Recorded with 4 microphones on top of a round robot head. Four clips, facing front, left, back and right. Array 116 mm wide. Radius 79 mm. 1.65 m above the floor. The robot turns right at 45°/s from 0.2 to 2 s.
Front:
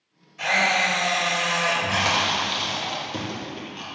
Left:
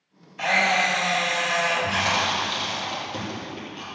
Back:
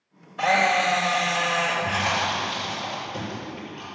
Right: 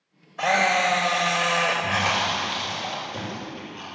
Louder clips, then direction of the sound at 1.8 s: Even, front 1 dB; 5° left.